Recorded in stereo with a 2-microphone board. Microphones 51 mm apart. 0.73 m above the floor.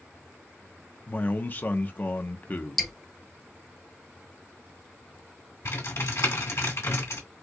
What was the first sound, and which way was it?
A man speaking, 35° left (ahead or behind).